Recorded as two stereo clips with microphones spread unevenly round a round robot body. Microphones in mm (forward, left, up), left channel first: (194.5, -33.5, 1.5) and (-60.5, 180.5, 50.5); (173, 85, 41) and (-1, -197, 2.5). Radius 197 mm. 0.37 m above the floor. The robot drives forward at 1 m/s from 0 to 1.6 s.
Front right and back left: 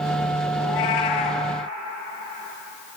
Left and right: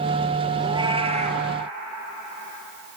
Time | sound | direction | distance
0.6 | a cat meowing | 40° right | 3 m